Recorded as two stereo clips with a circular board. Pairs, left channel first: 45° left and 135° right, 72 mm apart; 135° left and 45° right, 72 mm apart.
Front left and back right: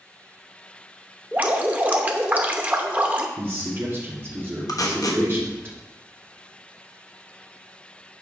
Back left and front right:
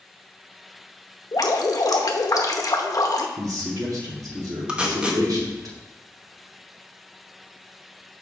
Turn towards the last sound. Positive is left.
turn(degrees=25)